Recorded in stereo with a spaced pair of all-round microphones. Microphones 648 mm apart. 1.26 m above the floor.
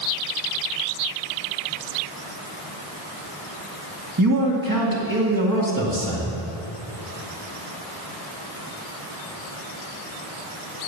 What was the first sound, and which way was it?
A man speaking, 35° right (ahead or behind).